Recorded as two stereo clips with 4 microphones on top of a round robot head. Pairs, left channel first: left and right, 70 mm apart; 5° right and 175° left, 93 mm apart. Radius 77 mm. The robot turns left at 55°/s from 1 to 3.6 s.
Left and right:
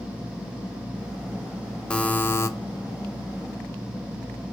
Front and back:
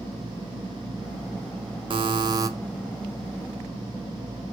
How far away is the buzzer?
About 0.7 m.